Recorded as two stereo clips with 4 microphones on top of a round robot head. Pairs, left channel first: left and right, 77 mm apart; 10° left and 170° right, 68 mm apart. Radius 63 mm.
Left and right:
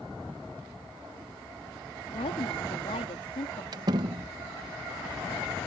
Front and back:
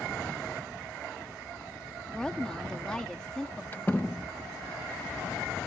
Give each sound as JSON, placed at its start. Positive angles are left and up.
{"t": 2.1, "sound": "a woman speaking", "azimuth_deg": 90}
{"t": 3.7, "sound": "a door slam", "azimuth_deg": -65}